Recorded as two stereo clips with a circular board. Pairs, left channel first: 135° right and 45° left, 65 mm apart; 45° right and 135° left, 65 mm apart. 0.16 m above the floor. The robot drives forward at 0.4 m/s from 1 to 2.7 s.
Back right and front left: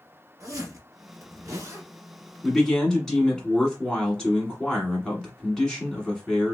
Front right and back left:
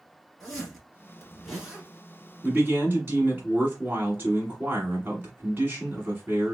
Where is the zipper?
45° left, 1.8 m; by 1.9 s 55° left, 1.6 m.